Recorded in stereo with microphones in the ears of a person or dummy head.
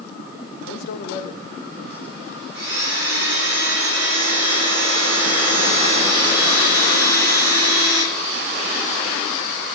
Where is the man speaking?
65° left (ahead or behind), 1.2 m; by 2.6 s 5° right (ahead or behind), 1.6 m.